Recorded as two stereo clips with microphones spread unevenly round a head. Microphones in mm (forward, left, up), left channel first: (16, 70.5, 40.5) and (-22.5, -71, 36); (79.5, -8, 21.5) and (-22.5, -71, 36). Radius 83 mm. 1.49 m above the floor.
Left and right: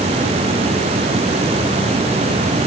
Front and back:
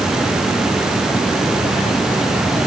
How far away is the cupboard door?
No cupboard door in this recording.